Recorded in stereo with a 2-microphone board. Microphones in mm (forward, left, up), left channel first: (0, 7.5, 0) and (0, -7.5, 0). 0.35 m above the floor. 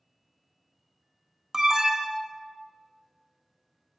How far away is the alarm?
About 0.9 m.